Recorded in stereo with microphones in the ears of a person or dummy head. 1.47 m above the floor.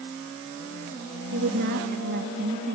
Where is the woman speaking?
50° right (ahead or behind), 2 m.